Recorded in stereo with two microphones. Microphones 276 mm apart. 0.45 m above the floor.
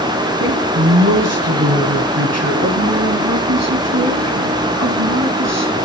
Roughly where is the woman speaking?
Right.